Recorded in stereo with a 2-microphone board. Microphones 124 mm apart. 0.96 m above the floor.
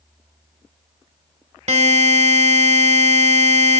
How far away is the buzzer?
About 1.1 m.